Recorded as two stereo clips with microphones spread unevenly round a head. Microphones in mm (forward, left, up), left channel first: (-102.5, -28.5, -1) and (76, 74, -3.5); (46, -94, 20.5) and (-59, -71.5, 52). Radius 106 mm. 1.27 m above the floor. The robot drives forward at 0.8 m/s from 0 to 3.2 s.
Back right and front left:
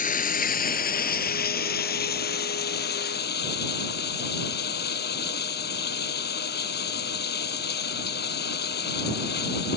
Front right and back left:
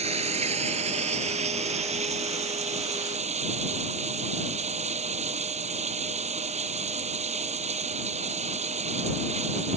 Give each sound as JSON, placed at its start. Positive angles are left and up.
{"t": 0.0, "sound": "running water", "azimuth_deg": 160}